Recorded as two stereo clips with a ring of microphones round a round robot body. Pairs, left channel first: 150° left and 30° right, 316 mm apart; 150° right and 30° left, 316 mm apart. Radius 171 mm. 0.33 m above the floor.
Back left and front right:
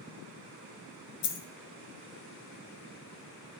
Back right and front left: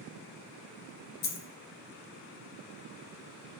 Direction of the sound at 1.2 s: 155° left.